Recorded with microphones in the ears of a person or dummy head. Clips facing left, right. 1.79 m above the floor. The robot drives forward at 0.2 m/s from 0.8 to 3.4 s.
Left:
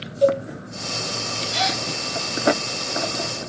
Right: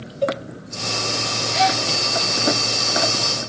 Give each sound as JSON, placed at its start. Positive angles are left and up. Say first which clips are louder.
{"t": 0.2, "sound": "a cowbell", "louder": "left 5 dB", "side_deg": 75, "distance_m": 2.5}
{"t": 1.5, "sound": "a gasp", "louder": "right 7 dB", "side_deg": 45, "distance_m": 2.0}